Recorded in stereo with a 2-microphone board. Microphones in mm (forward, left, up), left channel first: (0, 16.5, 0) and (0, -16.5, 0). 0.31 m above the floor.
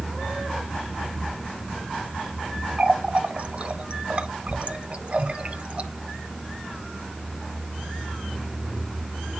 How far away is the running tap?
About 1.4 m.